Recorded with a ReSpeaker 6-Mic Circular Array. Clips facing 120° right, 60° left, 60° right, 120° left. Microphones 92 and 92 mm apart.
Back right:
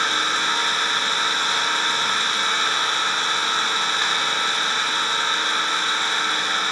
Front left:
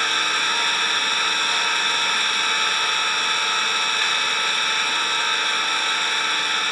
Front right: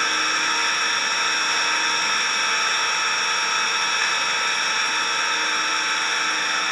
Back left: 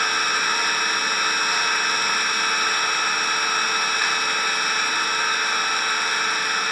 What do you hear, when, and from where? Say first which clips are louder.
0.0 s an engine running: back right 1 dB, back left 1 dB; 165° right, 0.7 m